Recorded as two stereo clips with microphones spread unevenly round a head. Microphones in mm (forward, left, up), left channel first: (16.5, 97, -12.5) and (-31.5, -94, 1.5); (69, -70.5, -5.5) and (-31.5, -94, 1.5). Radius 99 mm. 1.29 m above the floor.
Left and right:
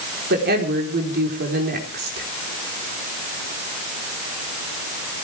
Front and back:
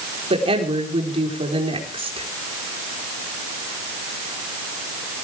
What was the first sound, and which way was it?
A woman speaking, 145° right.